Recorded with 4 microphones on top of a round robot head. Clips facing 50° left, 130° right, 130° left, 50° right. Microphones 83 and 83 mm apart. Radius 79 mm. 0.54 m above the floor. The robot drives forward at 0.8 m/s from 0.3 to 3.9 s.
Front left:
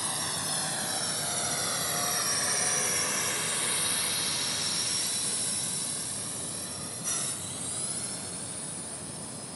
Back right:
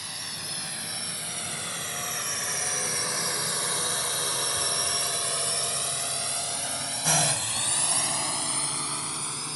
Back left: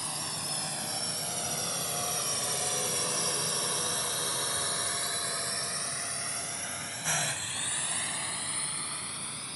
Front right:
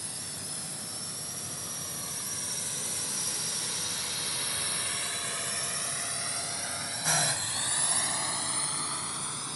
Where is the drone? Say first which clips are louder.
Front left 6 dB, back left 6 dB; 105° left; by 9.6 s 110° right.